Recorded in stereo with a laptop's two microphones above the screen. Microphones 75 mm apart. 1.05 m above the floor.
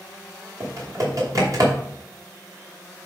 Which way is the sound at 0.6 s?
50° right (ahead or behind).